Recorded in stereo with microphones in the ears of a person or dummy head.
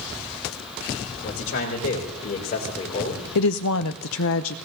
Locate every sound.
1.2 s a man speaking: 60° left (ahead or behind), 3.5 m; by 3.2 s 35° left (ahead or behind), 2.5 m
3.4 s a woman speaking: 70° left (ahead or behind), 0.6 m